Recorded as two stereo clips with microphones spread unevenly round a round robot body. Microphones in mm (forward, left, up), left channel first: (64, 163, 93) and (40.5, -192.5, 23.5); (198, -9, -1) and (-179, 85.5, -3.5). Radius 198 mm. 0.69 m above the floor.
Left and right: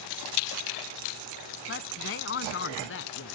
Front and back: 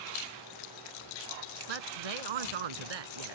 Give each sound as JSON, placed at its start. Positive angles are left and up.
{"t": 1.7, "sound": "a woman speaking", "azimuth_deg": 150}